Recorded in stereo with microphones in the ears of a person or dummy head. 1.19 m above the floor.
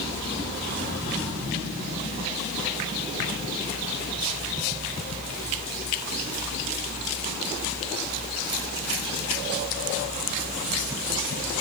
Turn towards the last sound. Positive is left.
No sound to turn to.